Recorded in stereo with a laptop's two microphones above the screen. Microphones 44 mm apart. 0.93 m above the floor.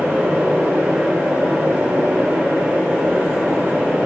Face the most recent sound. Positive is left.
turn(degrees=-55)  # may be behind; listen again after turning